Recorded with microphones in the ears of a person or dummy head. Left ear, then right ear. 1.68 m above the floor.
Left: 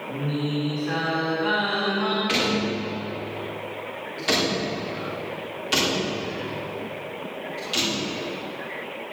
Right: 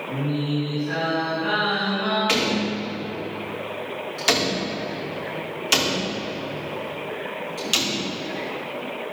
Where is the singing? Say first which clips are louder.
Right 1 dB; 45° left (ahead or behind), 4.5 m.